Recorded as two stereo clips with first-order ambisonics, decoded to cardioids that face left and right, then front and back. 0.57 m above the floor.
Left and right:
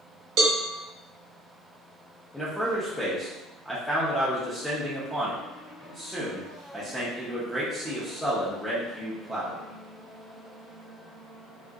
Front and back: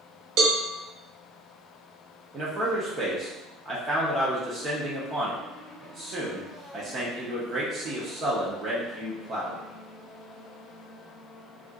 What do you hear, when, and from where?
0.4 s a cowbell: 135° right, 0.6 m
2.3 s a man speaking: 175° left, 0.6 m